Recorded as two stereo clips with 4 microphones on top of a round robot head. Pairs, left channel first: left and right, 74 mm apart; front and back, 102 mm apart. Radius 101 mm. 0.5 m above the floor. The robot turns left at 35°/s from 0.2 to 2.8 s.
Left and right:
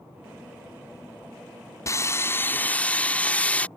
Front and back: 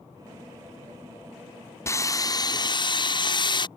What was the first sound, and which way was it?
Sawing, 55° left.